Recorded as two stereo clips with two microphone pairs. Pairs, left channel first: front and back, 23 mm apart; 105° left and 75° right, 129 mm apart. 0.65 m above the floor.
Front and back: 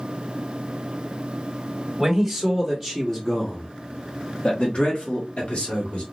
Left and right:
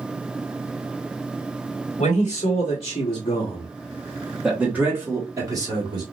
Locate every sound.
2.0 s a man speaking: 115° left, 1.3 m; by 6.0 s 25° right, 1.4 m